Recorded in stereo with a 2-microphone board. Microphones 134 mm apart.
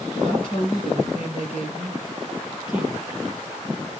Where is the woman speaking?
35° left (ahead or behind), 3 m.